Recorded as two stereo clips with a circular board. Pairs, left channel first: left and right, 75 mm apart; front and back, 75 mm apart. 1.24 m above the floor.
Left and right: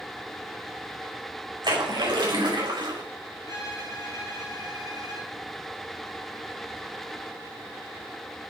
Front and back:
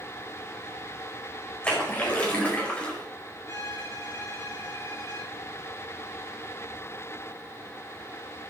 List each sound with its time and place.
1.6 s a splash: 75° right, 4.5 m
3.5 s a violin: 55° right, 4 m